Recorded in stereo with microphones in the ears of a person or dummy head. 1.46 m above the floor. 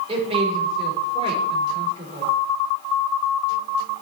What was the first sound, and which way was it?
A woman speaking, 30° right (ahead or behind).